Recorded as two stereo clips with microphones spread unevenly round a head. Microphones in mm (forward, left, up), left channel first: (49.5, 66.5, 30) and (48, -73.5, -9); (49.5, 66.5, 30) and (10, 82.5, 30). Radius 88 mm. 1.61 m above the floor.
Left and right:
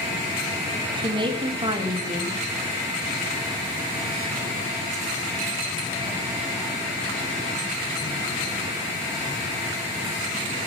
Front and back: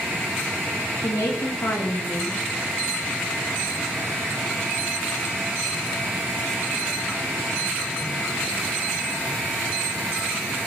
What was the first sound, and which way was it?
A woman speaking, 35° right.